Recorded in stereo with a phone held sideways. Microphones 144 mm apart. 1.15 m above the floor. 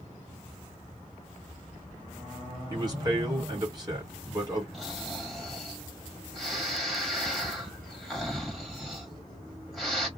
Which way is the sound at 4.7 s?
Centre (ahead or behind).